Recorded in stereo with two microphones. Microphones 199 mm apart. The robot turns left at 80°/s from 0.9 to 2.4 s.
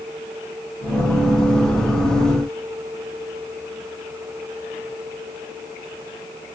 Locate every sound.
Only background noise.